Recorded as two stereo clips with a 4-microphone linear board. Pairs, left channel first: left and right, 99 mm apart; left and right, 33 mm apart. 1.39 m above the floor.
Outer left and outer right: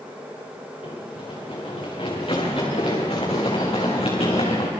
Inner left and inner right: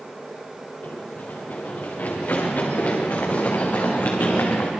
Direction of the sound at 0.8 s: 65° left (ahead or behind).